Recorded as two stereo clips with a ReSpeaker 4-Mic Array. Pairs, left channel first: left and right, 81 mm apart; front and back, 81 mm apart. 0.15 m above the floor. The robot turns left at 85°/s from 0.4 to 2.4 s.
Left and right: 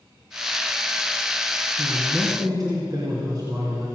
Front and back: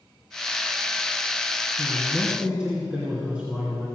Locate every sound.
1.8 s a man speaking: 50° right, 2.5 m; by 3.9 s 105° right, 2.5 m